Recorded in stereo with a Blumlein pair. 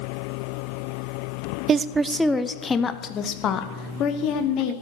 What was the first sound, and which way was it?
A woman speaking, 25° right.